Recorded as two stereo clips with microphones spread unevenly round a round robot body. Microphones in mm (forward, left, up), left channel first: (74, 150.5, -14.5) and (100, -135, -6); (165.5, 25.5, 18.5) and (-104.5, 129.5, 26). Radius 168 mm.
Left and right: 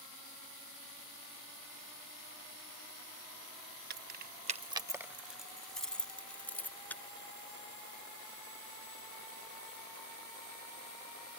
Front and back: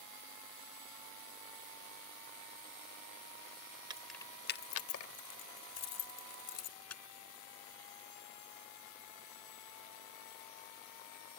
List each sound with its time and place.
3.9 s keys jangling: 130° right; by 7.0 s 10° left